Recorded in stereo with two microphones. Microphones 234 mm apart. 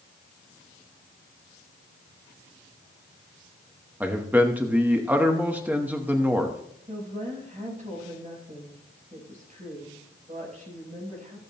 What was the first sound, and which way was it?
A man speaking, 5° right (ahead or behind).